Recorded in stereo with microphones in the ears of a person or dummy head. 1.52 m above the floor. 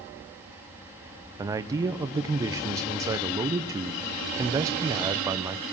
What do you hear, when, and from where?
1.4 s a man speaking: 20° right (ahead or behind), 1.0 m